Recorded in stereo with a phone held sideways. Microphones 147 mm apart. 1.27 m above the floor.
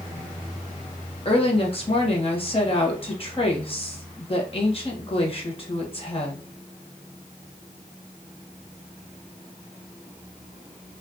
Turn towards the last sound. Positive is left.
turn(degrees=40)  # may be behind; listen again after turning